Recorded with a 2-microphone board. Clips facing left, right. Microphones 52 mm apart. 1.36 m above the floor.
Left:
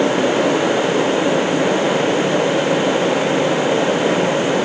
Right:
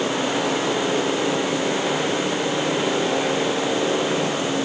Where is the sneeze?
No sneeze in this recording.